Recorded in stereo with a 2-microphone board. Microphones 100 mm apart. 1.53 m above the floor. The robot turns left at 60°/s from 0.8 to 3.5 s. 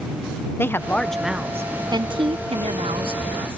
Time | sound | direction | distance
0.6 | a woman speaking | 25° left | ?